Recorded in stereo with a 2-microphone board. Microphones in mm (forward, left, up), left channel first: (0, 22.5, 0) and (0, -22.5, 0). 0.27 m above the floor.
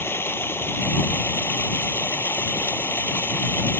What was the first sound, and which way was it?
Running water, 60° left (ahead or behind).